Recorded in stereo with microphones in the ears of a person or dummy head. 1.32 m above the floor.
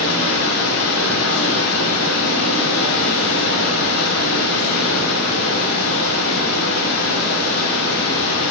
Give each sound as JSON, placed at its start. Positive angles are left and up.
{"t": 0.0, "sound": "running water", "side_deg": 85, "distance_m": 3.0}